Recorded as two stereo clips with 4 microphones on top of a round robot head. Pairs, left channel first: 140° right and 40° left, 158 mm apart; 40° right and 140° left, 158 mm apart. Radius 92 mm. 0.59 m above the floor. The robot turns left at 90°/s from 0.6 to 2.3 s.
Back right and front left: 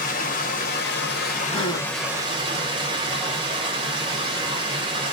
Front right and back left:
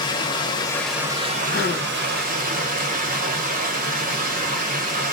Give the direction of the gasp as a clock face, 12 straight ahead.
2 o'clock.